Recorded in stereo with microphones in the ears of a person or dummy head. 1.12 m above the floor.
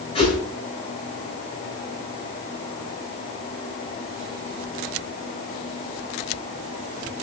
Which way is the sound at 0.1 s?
35° left (ahead or behind).